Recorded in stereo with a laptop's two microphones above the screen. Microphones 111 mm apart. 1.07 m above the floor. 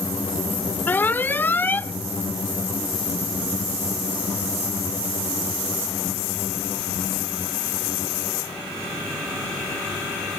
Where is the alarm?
15° left (ahead or behind).